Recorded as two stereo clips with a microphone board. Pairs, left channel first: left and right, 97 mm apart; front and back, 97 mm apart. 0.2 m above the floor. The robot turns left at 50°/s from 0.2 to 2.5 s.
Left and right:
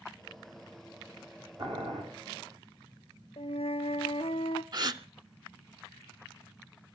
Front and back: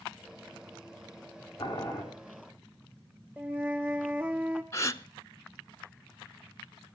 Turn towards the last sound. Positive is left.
turn(degrees=-50)